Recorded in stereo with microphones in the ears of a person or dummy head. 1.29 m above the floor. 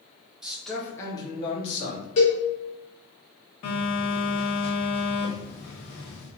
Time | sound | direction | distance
0.4 | a man speaking | 5° right (ahead or behind) | 1.2 m
2.2 | a cowbell | 35° left (ahead or behind) | 1.0 m
3.6 | a phone buzzing | 30° left (ahead or behind) | 1.2 m